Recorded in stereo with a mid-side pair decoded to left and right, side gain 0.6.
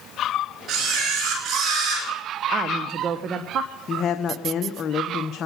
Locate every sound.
0.7 s a camera shutter: 50° right, 5.5 m
2.5 s a woman speaking: 50° right, 1.3 m
3.9 s a woman speaking: 40° left, 1.0 m